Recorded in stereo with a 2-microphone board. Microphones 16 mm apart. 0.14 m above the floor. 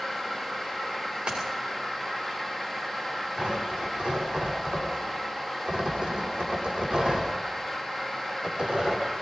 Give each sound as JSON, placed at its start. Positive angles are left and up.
{"t": 1.3, "sound": "a splash", "side_deg": -80, "distance_m": 7.5}
{"t": 3.4, "sound": "tearing paper", "side_deg": -75, "distance_m": 7.0}